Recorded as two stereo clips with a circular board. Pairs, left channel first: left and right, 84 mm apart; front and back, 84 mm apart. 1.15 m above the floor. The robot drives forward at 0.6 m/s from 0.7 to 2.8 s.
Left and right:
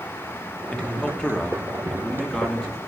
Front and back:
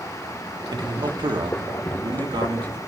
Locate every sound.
0.7 s a man speaking: 165° left, 1.2 m; by 2.8 s 170° left, 2.5 m